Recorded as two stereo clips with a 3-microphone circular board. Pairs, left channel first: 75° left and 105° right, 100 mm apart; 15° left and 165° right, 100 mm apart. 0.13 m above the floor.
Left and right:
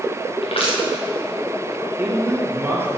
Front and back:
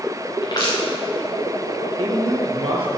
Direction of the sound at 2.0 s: 170° right.